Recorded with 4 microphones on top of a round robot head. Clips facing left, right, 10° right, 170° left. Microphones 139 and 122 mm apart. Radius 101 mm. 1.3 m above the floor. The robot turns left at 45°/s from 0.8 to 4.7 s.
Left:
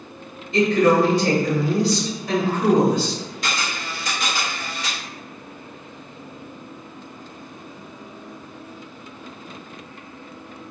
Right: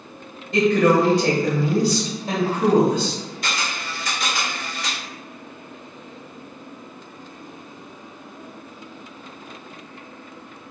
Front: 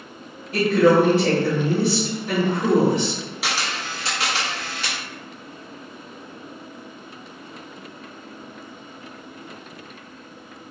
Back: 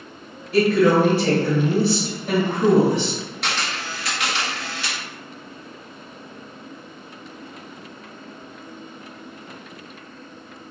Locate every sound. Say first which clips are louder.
0.5 s a woman speaking: even, even; 70° right, 1.5 m; by 3.2 s 175° right, 1.5 m
3.4 s a camera shutter: left 1 dB, front 1 dB; 75° left, 0.8 m; by 5.0 s 15° left, 0.8 m